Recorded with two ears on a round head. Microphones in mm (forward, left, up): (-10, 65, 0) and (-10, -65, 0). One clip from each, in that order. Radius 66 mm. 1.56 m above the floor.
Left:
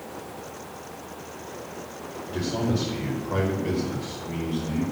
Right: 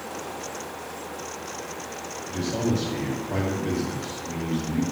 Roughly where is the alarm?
I don't hear an alarm.